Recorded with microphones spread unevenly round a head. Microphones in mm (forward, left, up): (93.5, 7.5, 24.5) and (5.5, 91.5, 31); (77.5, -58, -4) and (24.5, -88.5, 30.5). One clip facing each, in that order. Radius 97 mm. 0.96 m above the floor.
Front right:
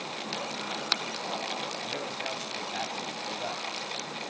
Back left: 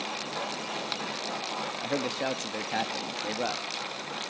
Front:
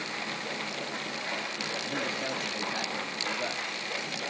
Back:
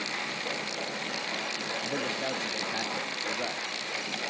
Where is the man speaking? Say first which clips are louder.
Back left 6 dB, back 1 dB; 130° left, 1.9 m.